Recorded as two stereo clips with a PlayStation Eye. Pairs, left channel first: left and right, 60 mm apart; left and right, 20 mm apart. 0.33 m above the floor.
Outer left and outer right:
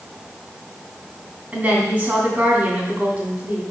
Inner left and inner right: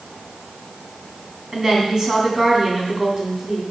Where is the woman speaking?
25° right (ahead or behind), 2.5 m.